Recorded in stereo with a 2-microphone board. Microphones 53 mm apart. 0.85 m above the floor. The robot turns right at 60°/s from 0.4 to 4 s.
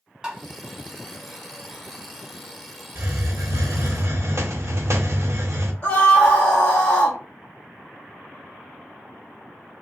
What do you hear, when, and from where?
0.2 s tapping: 15° right (ahead or behind), 1.0 m
3.0 s a hiss: 125° right, 0.9 m; by 5.7 s 65° right, 0.9 m
5.8 s a scream: 25° left (ahead or behind), 1.1 m